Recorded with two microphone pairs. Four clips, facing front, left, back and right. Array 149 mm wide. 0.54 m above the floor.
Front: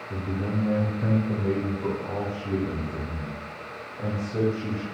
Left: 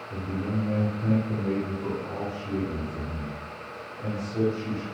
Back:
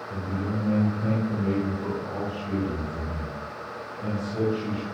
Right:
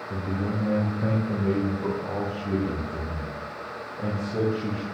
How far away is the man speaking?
About 4.5 m.